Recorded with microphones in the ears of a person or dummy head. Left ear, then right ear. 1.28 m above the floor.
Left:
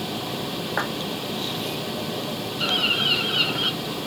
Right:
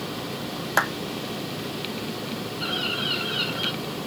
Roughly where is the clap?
Right.